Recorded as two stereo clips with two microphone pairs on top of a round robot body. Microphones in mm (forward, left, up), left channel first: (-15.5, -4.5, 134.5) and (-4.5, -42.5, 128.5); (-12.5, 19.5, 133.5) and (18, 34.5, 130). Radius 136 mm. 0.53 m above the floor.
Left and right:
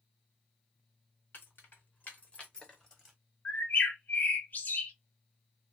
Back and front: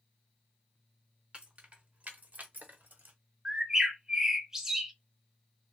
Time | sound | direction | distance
1.3 | keys jangling | 80° left | 1.3 m
3.5 | a bird | 90° left | 0.9 m